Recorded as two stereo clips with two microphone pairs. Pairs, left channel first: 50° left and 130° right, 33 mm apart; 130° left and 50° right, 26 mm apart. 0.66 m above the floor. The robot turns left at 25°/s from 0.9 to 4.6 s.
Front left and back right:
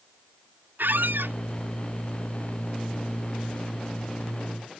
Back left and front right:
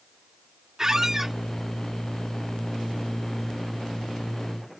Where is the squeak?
120° right; by 1.4 s 135° right.